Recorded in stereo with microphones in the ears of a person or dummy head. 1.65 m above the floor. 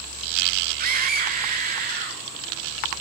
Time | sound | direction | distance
0.8 | a scream | 40° right (ahead or behind) | 1.4 m